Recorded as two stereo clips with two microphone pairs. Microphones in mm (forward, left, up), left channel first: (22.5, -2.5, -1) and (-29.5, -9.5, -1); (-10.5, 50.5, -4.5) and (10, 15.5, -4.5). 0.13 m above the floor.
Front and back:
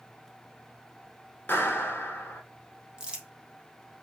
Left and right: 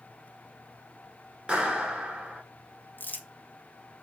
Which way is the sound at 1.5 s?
5° right.